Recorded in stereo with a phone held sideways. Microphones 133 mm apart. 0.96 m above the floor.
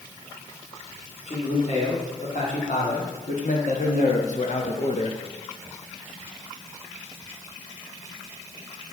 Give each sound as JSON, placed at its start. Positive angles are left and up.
{"t": 1.3, "sound": "a man speaking", "side_deg": 60, "distance_m": 3.0}